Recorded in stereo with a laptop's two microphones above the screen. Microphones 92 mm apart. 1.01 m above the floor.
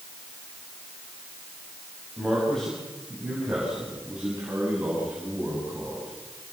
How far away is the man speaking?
About 5 m.